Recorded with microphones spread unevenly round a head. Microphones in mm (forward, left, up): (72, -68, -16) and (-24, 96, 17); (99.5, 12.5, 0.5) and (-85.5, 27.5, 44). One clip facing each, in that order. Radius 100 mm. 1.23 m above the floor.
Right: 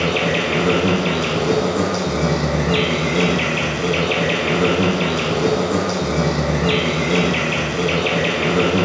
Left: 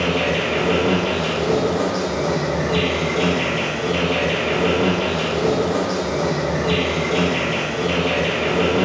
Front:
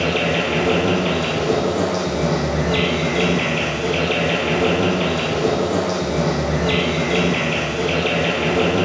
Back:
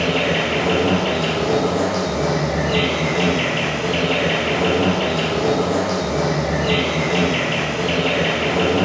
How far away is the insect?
About 0.7 m.